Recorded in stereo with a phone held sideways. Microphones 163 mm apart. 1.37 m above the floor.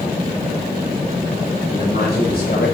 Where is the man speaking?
80° left, 7 m; by 2.7 s 85° left, 6.5 m.